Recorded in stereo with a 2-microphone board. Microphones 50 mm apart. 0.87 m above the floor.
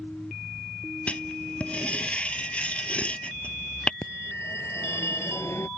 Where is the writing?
20° left (ahead or behind).